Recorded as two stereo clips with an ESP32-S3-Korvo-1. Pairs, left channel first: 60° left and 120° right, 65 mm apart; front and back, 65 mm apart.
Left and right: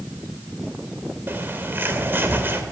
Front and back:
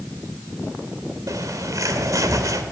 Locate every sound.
1.3 s a bird: 170° right, 2 m